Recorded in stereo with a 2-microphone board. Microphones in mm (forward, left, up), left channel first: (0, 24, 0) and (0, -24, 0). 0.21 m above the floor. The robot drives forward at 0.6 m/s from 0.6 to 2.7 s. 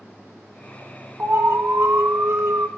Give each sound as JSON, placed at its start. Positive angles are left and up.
{"t": 1.2, "sound": "an alarm", "side_deg": -50, "distance_m": 1.5}